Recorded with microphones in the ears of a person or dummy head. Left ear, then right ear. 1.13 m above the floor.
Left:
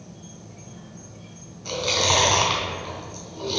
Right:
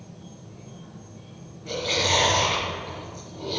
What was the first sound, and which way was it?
An insect, 55° left (ahead or behind).